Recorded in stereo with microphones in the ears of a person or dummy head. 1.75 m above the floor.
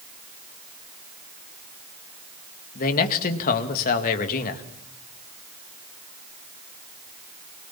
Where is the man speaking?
45° left (ahead or behind), 2 m.